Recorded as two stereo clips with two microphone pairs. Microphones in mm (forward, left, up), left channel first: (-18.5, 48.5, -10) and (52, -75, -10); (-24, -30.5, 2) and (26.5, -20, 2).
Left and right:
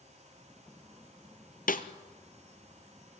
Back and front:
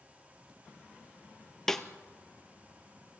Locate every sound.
1.7 s a snare drum: 110° left, 1.0 m